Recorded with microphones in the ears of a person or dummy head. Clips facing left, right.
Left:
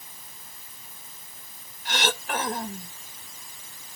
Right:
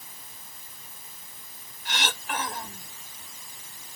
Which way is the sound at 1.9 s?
50° left (ahead or behind).